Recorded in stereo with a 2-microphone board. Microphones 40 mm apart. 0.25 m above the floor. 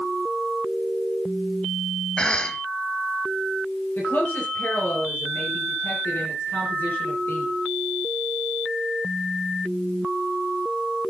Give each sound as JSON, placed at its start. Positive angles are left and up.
{"t": 2.2, "sound": "a cough", "side_deg": 25, "distance_m": 1.0}
{"t": 4.0, "sound": "a woman speaking", "side_deg": 55, "distance_m": 6.0}